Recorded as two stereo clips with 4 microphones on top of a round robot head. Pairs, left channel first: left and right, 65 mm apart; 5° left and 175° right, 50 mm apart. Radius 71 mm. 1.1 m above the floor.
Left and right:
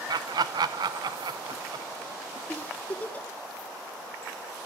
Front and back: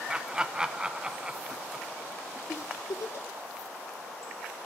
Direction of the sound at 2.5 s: 25° left.